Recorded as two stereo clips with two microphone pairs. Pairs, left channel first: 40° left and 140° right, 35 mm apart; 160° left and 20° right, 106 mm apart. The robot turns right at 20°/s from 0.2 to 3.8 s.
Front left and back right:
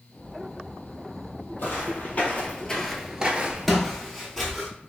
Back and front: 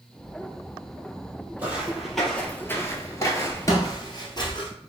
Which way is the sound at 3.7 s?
130° left.